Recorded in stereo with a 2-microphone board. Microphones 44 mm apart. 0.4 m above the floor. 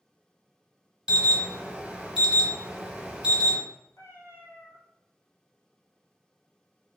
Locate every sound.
1.1 s an alarm: 20° right (ahead or behind), 0.9 m
4.0 s a cat meowing: 70° left (ahead or behind), 1.4 m